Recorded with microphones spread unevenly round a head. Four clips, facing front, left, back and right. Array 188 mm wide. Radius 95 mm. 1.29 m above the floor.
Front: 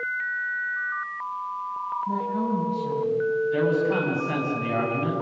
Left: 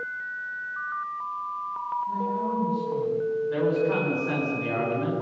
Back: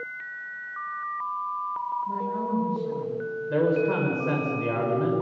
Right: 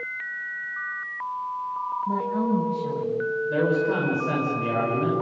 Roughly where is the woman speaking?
Right.